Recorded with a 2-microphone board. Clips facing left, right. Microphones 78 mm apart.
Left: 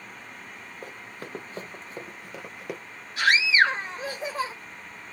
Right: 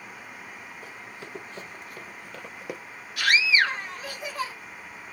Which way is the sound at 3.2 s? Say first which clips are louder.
Left 2 dB; 30° left (ahead or behind).